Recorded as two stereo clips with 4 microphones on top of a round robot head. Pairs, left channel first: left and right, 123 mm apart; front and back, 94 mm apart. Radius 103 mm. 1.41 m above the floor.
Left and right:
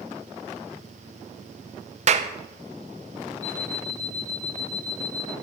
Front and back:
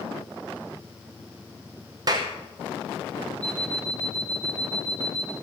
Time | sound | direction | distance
2.1 | a clap | 120° right | 0.9 m
3.4 | an alarm clock | 70° left | 0.7 m